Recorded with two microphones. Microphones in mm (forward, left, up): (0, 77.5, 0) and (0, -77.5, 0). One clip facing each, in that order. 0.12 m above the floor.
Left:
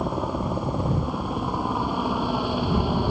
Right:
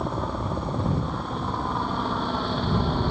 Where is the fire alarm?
I don't hear a fire alarm.